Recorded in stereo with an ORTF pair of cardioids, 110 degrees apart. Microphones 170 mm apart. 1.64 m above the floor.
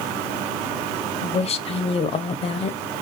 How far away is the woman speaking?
About 0.6 m.